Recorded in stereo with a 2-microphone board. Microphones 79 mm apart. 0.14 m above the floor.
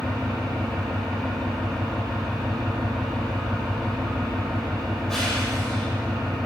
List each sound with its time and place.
0.0 s an engine running: 5° left (ahead or behind), 8 m